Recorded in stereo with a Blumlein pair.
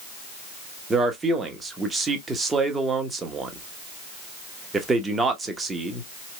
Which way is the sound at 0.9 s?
15° right.